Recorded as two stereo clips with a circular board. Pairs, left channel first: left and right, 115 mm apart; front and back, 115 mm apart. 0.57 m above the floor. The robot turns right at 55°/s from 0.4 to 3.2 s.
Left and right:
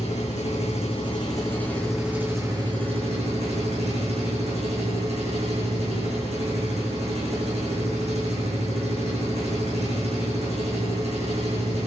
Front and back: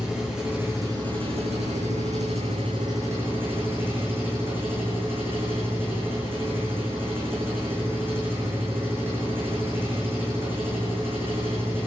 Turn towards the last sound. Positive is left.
turn(degrees=-110)